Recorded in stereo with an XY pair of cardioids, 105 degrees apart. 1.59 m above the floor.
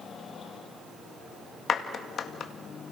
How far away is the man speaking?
No man speaking in this recording.